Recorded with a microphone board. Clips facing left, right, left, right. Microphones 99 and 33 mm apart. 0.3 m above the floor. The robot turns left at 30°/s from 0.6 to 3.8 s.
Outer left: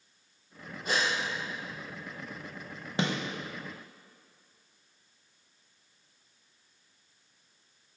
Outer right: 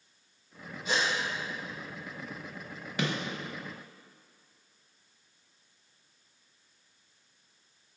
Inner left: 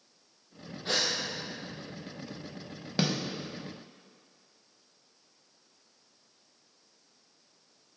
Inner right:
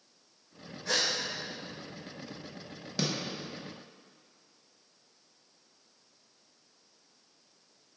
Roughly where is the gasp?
Left.